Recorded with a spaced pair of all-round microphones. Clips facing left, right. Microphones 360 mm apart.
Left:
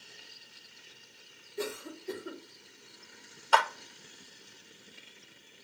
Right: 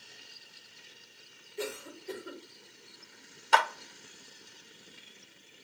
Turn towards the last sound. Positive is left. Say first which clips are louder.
# even
turn(degrees=-35)  # may be behind; listen again after turning